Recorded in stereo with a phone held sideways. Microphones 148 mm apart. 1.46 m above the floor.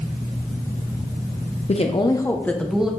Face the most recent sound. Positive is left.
turn(degrees=-5)  # may be behind; listen again after turning